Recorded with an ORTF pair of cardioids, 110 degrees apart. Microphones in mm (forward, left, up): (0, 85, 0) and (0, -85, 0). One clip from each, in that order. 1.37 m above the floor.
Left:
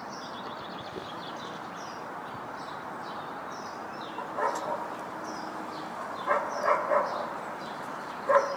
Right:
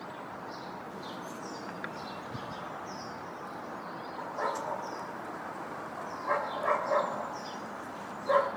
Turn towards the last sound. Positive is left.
turn(degrees=15)